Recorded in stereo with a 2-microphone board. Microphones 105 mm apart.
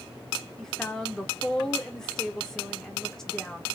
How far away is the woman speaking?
About 0.9 m.